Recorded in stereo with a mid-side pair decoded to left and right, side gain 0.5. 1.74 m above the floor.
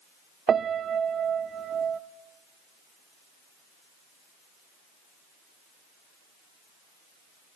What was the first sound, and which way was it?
A piano, 45° right.